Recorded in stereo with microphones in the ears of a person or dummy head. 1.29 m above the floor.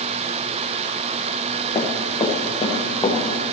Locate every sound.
1.8 s running footsteps: 25° left (ahead or behind), 4 m; by 3.2 s 20° left (ahead or behind), 5.5 m